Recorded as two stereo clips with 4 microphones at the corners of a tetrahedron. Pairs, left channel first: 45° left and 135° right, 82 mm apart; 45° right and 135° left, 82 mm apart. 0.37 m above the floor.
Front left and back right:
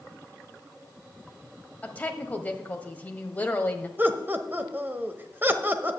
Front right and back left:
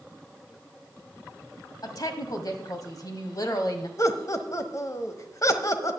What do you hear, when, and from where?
1.8 s a woman speaking: 25° right, 1.6 m
4.0 s laughter: 80° right, 1.4 m